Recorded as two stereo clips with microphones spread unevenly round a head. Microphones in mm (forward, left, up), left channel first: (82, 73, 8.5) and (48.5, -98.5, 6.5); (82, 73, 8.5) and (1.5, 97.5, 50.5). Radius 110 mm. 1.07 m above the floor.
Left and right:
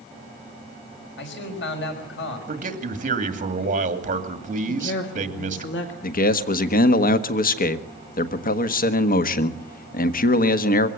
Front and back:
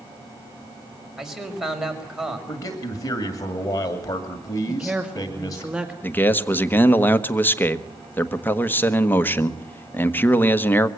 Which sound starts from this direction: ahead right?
A man speaking, at 2.5 s.